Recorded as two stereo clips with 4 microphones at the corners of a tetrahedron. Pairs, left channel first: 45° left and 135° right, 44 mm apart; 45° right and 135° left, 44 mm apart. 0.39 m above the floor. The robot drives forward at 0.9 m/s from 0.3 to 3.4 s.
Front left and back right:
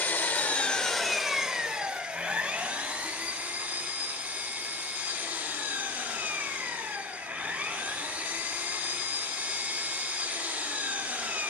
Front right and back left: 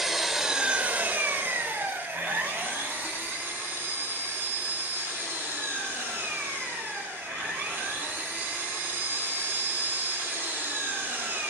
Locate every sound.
0.0 s an engine running: 55° left, 0.8 m; by 11.5 s 170° left, 2.5 m